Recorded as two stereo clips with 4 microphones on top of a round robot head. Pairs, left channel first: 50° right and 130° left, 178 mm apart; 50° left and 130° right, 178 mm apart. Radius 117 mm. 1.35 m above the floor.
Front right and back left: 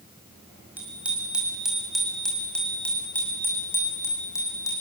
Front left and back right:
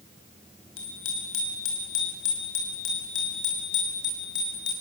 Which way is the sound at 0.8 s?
50° left.